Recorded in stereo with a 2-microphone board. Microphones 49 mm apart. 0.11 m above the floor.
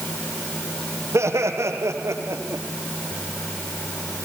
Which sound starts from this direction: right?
Laughter, at 1.1 s.